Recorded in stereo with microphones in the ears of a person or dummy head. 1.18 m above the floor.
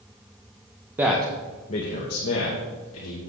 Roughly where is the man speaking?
Centre.